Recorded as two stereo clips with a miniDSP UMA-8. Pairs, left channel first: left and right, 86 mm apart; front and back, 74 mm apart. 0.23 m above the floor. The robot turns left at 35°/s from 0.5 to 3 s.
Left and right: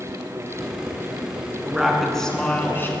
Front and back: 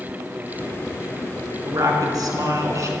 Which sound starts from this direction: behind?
A woman speaking, at 1.6 s.